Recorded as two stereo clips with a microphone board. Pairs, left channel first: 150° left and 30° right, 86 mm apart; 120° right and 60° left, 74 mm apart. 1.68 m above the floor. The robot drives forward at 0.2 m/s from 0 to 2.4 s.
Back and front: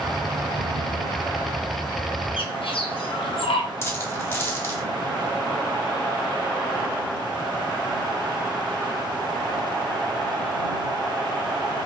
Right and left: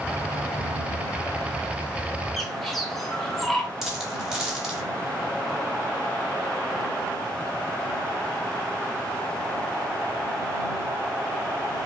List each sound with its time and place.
2.4 s a bird: 155° left, 0.8 m
3.8 s a dropped coin: 135° left, 1.3 m